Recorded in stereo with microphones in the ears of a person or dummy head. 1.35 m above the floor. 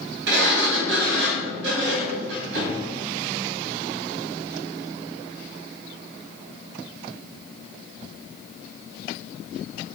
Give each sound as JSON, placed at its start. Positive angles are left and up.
{"t": 0.3, "sound": "a sliding door", "side_deg": -70, "distance_m": 3.0}